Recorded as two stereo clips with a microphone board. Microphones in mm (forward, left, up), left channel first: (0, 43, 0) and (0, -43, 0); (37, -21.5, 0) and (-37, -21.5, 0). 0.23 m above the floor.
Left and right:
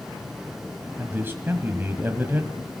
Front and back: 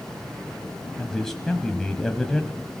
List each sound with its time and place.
1.0 s a man speaking: 75° right, 1.5 m